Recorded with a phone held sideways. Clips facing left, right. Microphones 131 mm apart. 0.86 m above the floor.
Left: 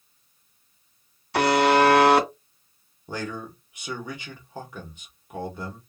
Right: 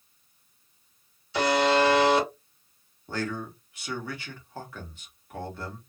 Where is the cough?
No cough in this recording.